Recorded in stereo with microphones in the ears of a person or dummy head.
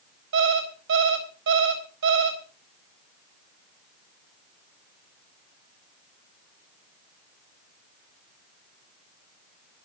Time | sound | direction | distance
0.3 | an alarm clock | 65° right (ahead or behind) | 3.5 m